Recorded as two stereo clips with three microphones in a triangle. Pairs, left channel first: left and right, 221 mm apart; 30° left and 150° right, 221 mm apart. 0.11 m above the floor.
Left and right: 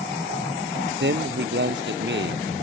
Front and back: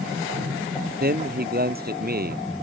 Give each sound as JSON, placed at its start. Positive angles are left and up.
{"t": 1.0, "sound": "a man speaking", "azimuth_deg": -115}